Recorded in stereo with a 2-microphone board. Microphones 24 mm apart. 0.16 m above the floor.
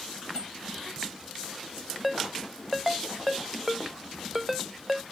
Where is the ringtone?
5° right (ahead or behind).